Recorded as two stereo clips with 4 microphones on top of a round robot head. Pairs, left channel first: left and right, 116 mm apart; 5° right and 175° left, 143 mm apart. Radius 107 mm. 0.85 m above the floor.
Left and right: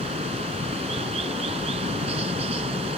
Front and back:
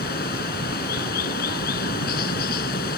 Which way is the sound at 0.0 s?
40° right.